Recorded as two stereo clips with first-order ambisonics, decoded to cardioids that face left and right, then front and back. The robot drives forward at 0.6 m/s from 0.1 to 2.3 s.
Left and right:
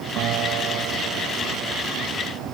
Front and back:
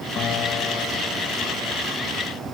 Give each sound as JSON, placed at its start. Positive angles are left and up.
{"t": 0.2, "sound": "a guitar", "azimuth_deg": -50}